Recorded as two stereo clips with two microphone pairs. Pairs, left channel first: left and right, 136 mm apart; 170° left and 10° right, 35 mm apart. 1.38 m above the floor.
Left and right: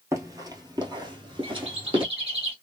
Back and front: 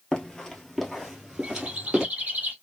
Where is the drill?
I don't hear a drill.